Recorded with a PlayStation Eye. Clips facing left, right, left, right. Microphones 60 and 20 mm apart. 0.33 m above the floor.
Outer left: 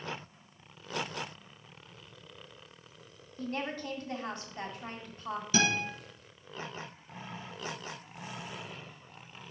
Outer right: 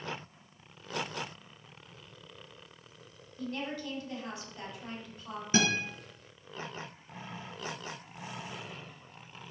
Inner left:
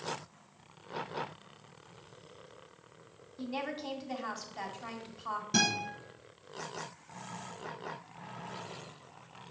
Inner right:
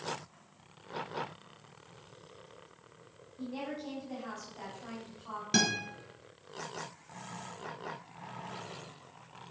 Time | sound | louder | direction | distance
3.4 | a woman speaking | outer left 1 dB, inner left 2 dB | 40° left (ahead or behind) | 2 m
5.5 | a guitar | outer right 1 dB, even | 35° right (ahead or behind) | 3.5 m